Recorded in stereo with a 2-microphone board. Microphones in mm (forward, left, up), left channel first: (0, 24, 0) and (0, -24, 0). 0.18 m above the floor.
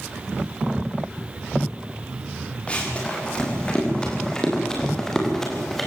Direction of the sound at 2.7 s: 25° left (ahead or behind).